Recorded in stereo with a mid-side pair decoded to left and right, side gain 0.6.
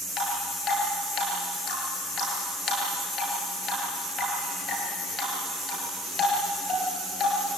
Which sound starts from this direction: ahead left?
Dripping, at 0.2 s.